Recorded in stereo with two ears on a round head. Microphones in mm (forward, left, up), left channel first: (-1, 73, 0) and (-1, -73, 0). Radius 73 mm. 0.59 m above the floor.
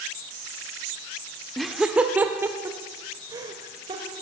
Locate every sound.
1.6 s laughter: centre (ahead or behind), 1.2 m; by 4.1 s 30° right (ahead or behind), 2.5 m